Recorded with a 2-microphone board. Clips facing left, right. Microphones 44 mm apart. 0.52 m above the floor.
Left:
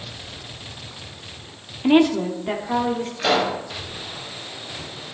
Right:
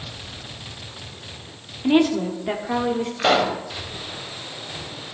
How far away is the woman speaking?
About 1.2 m.